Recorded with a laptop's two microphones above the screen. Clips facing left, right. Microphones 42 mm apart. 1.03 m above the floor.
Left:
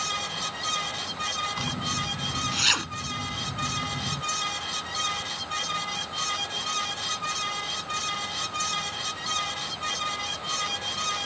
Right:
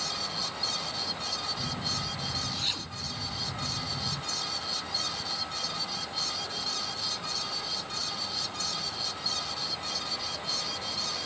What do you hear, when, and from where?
0.0 s a fan: 50° left (ahead or behind)
1.6 s a zipper: 70° left (ahead or behind)